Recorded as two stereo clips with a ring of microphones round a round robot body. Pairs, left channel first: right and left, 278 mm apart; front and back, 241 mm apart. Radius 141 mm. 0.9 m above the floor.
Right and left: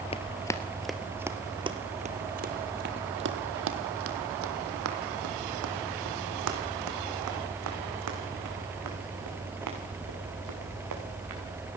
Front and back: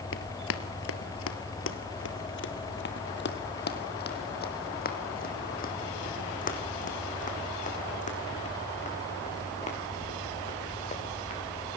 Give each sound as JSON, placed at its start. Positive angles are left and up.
{"t": 0.1, "sound": "running footsteps", "azimuth_deg": -25, "distance_m": 1.3}